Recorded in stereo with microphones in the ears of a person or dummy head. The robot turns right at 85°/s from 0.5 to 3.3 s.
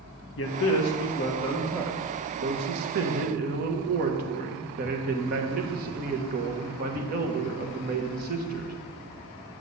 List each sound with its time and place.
0.4 s a man speaking: 70° left, 1.2 m; by 8.7 s 50° right, 1.2 m